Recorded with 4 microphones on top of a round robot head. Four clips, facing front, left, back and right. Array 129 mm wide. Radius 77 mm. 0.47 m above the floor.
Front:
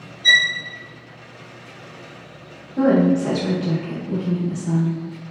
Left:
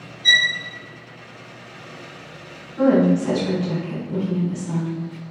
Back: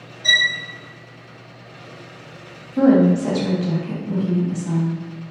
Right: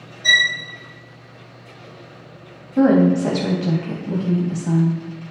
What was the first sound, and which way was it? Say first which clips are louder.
A violin: right 2 dB, front 2 dB; 130° right.